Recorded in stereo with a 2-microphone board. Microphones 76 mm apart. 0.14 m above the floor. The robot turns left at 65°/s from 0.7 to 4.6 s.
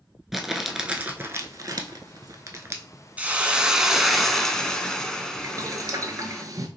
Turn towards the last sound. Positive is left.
turn(degrees=-50)  # may be behind; listen again after turning